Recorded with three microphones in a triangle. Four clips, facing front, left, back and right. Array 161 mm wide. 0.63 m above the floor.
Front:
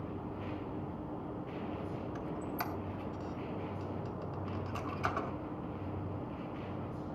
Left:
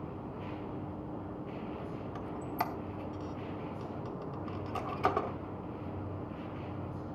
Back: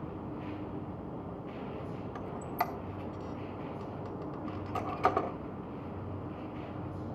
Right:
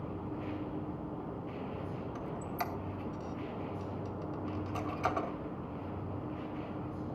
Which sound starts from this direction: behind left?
A squeak, at 2.1 s.